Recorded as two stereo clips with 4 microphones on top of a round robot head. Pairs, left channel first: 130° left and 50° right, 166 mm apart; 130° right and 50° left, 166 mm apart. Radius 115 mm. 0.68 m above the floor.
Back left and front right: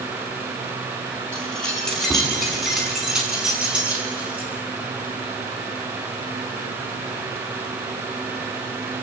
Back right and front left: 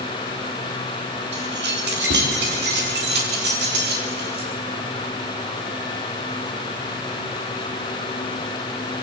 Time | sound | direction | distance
1.3 | keys jangling | 45° left | 5 m